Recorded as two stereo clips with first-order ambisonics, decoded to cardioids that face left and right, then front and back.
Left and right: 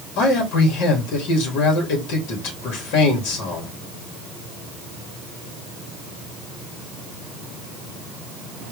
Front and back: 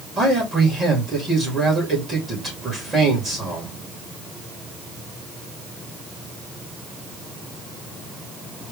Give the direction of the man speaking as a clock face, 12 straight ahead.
9 o'clock.